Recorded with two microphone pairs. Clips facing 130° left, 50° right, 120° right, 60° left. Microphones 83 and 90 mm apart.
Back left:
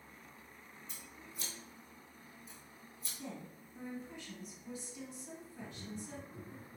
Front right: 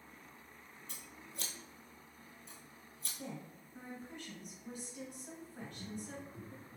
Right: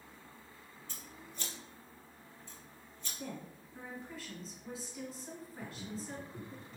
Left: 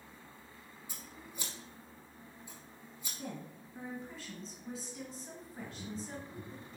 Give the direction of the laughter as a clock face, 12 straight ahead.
6 o'clock.